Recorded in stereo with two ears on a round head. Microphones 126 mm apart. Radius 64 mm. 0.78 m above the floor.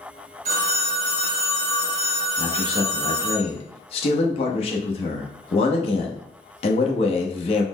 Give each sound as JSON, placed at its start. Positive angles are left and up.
{"t": 0.5, "sound": "a phone ringing", "side_deg": -50, "distance_m": 1.5}
{"t": 2.4, "sound": "a man speaking", "side_deg": 45, "distance_m": 0.8}